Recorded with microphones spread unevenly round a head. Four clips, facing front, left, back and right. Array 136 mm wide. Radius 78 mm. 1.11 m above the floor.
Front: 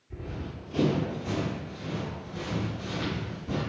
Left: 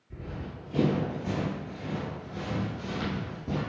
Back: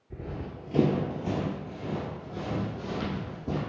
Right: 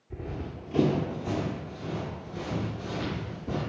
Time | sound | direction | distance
0.1 | running footsteps | 165° right | 1.2 m